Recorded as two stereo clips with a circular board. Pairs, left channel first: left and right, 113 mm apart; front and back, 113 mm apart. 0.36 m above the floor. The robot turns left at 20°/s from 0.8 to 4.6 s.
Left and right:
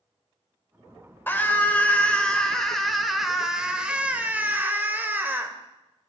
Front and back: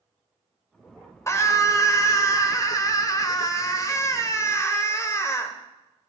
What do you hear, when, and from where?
1.3 s a scream: 35° left, 1.3 m; by 5.5 s 30° right, 1.3 m